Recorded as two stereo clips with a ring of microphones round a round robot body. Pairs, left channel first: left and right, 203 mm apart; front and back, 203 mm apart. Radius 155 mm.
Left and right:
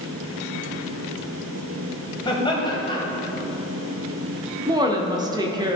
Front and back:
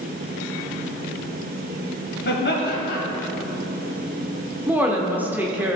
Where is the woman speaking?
115° right, 0.9 m.